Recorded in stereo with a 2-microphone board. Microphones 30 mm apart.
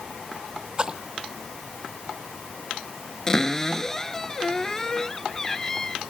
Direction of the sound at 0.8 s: 25° right (ahead or behind).